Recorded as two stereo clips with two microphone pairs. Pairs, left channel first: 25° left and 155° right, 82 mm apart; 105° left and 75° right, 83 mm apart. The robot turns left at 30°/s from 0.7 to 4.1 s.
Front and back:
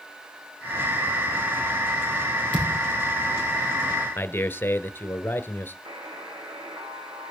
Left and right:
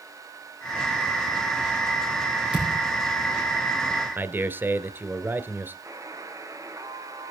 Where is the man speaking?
25° right, 1.5 m.